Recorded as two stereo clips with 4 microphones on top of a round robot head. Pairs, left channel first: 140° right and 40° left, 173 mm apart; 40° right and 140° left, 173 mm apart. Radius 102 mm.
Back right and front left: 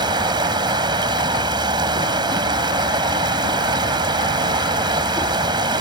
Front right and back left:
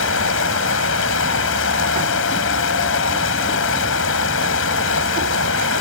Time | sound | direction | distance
0.0 | running water | 25° right | ?